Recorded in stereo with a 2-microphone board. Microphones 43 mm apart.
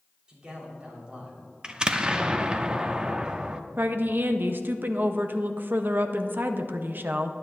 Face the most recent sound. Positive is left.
turn(degrees=-55)  # may be behind; listen again after turning